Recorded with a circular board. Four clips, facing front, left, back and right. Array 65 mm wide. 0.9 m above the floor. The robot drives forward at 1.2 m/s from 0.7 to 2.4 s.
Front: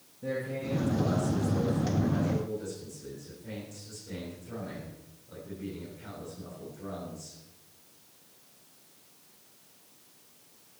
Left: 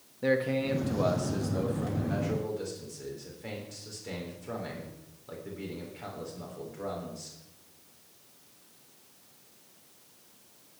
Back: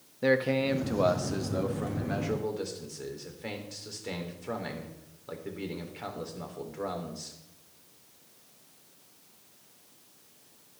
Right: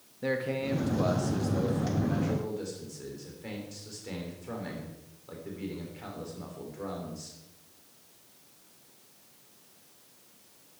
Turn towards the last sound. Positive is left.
turn(degrees=180)